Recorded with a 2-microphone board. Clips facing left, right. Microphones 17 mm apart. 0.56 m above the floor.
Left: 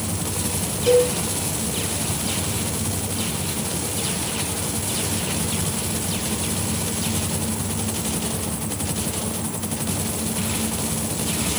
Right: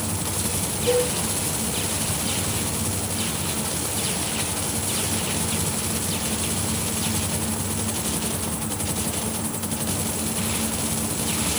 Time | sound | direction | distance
0.9 | a cowbell | 55° left (ahead or behind) | 5 m